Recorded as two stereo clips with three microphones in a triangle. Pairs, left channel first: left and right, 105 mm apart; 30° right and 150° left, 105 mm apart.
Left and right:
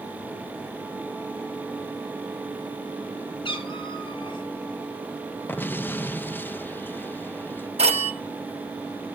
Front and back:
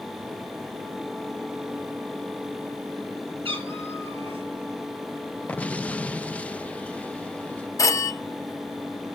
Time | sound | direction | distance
3.5 | a cat meowing | 125° left | 2.5 m
5.5 | an explosion | 35° left | 0.5 m
7.8 | a phone ringing | 90° right | 1.7 m